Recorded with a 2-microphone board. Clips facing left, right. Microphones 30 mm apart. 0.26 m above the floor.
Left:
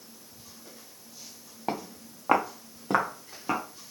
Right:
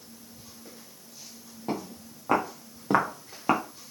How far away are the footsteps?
About 1.5 m.